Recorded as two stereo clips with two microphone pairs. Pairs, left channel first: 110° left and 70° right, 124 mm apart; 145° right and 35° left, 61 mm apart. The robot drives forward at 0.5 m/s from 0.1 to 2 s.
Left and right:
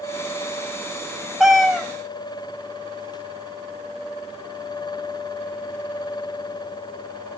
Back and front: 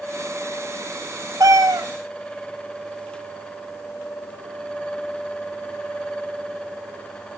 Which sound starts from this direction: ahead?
A cat meowing, at 1.4 s.